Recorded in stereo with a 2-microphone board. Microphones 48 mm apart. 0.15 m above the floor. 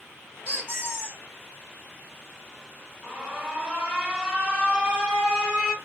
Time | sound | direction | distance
0.5 | a squeak | 45° right (ahead or behind) | 2.5 m
3.0 | an alarm | 20° right (ahead or behind) | 2 m